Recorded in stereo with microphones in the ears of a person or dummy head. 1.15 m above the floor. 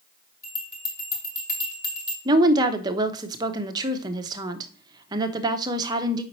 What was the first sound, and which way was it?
A bell, 20° left (ahead or behind).